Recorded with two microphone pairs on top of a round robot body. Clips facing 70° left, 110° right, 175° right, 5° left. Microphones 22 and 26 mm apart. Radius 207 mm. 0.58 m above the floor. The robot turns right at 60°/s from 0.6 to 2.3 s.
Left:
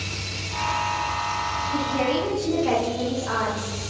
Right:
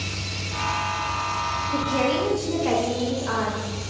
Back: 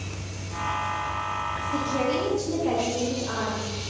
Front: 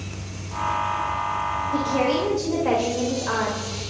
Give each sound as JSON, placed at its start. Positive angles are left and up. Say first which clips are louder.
{"t": 1.7, "sound": "a woman speaking", "louder": "right 1 dB, front 3 dB", "azimuth_deg": -65, "distance_m": 4.0}